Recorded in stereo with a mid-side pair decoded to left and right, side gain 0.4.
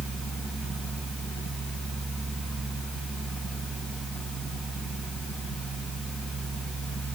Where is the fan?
65° right, 3 m.